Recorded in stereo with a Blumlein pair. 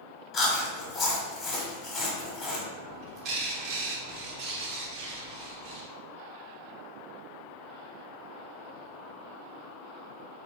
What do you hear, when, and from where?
0.3 s chewing: 25° left, 1.3 m
2.8 s a bird: 40° right, 0.9 m